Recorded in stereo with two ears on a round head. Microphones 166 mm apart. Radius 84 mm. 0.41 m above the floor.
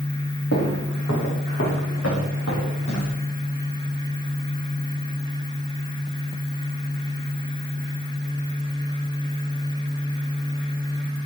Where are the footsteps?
75° left (ahead or behind), 5 m; by 3.1 s 85° left, 7.5 m.